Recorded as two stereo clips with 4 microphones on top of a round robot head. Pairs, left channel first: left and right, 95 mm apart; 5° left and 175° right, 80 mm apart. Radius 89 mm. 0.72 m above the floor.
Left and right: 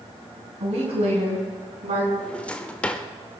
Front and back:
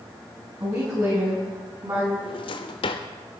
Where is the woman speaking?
115° right, 5.5 m; by 2.1 s 110° right, 6.5 m.